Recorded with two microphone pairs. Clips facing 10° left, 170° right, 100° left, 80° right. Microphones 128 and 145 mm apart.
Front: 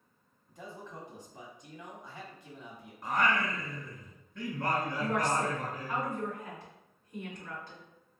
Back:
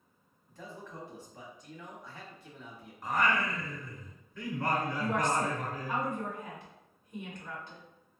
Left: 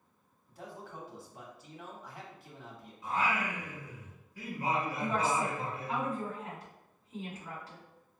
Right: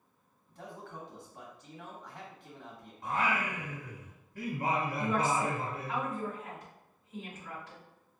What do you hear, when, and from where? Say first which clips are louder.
0.5 s a man speaking: even, even; 35° left, 1.0 m
3.0 s singing: even, even; 85° right, 0.9 m
5.0 s a woman speaking: front 1 dB, right 2 dB; 130° left, 1.7 m